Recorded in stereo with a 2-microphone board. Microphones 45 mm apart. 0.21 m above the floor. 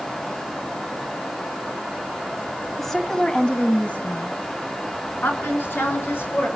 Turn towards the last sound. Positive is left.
turn(degrees=60)  # may be behind; listen again after turning